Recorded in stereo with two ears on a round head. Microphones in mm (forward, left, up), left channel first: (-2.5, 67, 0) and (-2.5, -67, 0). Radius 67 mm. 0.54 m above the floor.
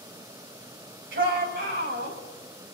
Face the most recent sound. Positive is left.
turn(degrees=-75)  # may be behind; listen again after turning